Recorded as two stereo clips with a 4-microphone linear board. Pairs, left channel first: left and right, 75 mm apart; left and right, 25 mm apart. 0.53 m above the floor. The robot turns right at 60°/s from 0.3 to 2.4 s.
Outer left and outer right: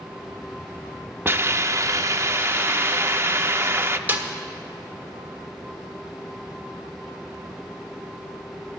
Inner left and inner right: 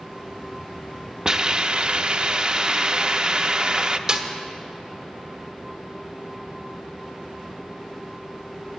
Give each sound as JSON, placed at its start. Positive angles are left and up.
{"t": 1.2, "sound": "a hiss", "azimuth_deg": -125, "distance_m": 0.5}
{"t": 4.1, "sound": "a snare drum", "side_deg": -20, "distance_m": 1.3}